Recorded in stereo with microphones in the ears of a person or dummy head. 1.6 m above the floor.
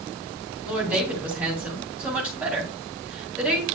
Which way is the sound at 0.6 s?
Centre (ahead or behind).